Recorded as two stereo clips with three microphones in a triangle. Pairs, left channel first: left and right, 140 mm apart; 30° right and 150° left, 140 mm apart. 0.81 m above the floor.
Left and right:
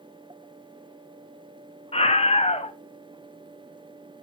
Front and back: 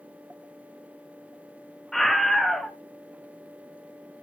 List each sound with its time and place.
1.9 s a scream: 60° left, 1.7 m